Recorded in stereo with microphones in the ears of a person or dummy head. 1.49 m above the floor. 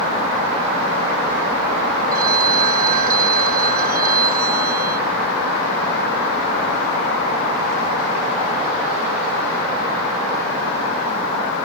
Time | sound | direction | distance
2.1 | a phone ringing | 45° right (ahead or behind) | ?